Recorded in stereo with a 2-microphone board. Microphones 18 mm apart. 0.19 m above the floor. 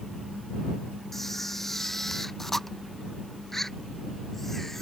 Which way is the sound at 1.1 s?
20° left (ahead or behind).